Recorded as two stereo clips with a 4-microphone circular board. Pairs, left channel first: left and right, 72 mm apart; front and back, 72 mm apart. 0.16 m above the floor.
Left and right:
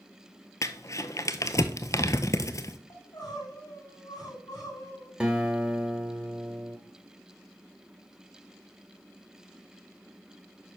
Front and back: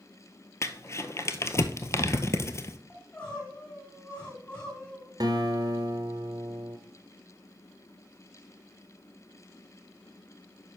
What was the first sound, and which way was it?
Crumpling, 45° left.